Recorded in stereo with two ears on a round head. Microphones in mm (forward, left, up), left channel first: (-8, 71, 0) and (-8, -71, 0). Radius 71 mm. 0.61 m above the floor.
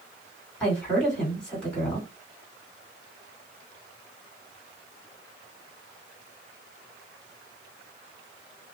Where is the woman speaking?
5° left (ahead or behind), 2 m.